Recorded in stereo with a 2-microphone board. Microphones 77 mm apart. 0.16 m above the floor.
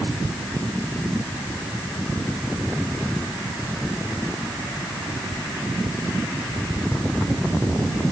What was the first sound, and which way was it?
Only background noise.